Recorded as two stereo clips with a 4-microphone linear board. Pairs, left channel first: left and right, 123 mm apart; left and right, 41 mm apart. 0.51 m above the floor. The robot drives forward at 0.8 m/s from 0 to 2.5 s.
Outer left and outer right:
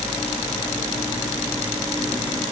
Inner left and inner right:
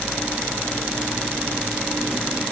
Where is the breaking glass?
I don't hear breaking glass.